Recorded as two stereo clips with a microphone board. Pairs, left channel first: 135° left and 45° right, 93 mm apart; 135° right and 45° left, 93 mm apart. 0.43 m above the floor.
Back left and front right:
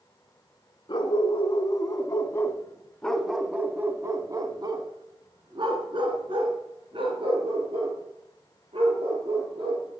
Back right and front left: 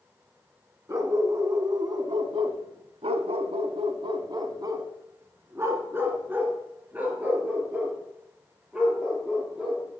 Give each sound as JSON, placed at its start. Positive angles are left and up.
{"t": 0.9, "sound": "a dog barking", "azimuth_deg": 100, "distance_m": 1.6}